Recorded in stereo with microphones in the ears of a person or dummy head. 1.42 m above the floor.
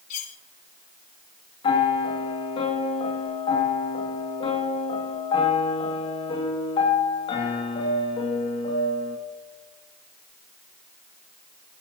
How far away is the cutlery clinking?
About 1.6 m.